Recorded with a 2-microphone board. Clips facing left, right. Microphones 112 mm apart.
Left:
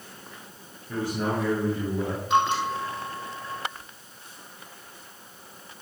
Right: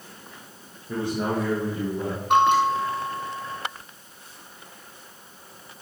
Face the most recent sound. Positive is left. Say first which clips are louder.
# right 6 dB
turn(degrees=-65)  # may be behind; listen again after turning